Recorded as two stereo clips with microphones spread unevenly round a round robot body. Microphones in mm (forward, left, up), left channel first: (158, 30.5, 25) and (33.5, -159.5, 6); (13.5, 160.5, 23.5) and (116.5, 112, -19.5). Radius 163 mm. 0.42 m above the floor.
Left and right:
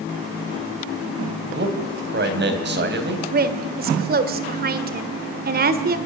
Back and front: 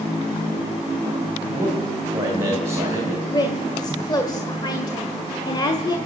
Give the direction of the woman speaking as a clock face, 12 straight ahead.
4 o'clock.